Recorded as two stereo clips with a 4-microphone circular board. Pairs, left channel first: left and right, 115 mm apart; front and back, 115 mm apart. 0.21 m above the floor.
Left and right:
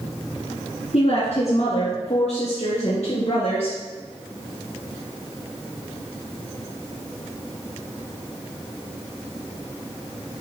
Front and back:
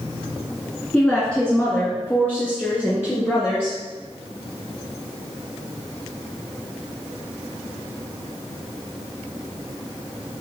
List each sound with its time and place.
0.9 s a woman speaking: 80° left, 1.9 m; by 3.8 s 70° left, 3.5 m